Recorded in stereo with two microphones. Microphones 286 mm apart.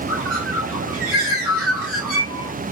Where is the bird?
50° right (ahead or behind), 1.8 m.